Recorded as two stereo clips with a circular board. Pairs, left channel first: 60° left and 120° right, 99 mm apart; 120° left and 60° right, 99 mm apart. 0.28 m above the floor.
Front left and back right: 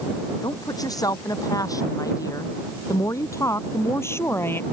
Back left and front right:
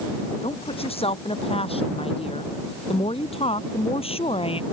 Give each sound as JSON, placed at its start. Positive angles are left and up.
{"t": 0.4, "sound": "a woman speaking", "azimuth_deg": 110}